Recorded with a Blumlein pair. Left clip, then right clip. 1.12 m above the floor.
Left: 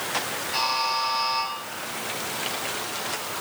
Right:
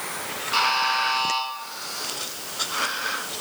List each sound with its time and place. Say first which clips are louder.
0.5 s a buzzer: right 4 dB; 30° right, 5.5 m